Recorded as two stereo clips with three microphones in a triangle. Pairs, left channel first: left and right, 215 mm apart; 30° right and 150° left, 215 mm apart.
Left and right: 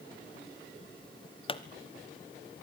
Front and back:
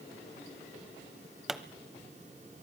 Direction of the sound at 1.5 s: 65° left.